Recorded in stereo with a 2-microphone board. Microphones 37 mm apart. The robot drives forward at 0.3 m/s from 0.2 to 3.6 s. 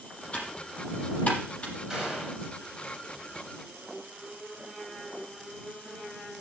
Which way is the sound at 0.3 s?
35° left (ahead or behind).